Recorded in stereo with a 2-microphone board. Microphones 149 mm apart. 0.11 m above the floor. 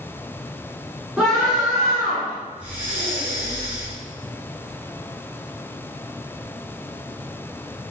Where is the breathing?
10° right (ahead or behind), 1.3 m.